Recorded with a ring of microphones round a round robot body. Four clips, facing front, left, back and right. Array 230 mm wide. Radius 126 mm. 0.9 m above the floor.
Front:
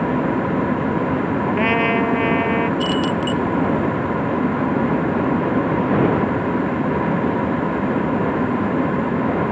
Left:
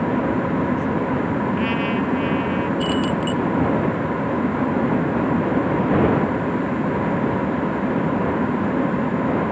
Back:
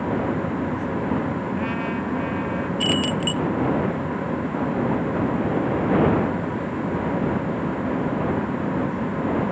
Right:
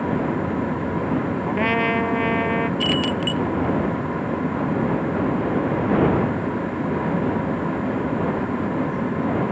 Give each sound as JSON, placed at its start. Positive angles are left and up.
{"t": 1.5, "sound": "a trumpet", "azimuth_deg": -35}
{"t": 2.8, "sound": "keys jangling", "azimuth_deg": -105}